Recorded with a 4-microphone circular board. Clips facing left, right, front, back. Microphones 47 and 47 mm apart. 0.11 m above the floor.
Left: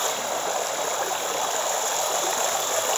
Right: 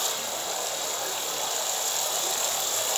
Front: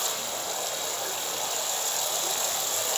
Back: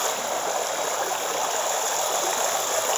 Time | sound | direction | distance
0.0 | running water | 135° left | 1.9 m